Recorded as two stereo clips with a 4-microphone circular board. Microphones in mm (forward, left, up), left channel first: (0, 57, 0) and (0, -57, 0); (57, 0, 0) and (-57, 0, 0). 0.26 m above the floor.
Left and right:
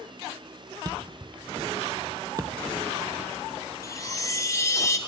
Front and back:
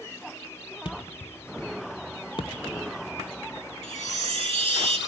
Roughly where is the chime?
Behind left.